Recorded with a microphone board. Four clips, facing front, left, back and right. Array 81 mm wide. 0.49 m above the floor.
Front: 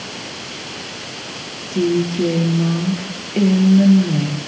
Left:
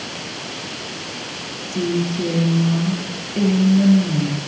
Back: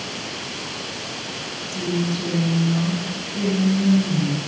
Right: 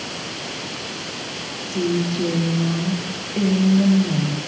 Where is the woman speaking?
Straight ahead, 9.5 m.